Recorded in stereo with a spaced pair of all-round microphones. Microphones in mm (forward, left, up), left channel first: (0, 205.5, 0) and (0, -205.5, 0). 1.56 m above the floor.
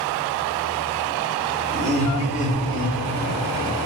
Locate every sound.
1.7 s laughter: 10° left (ahead or behind), 2.5 m; by 3.8 s 25° left (ahead or behind), 3.5 m